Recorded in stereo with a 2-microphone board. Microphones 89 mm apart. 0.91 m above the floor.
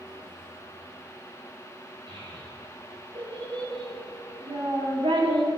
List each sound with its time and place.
2.1 s a child speaking: 65° right (ahead or behind), 4.5 m; by 5.5 s 60° right (ahead or behind), 1.5 m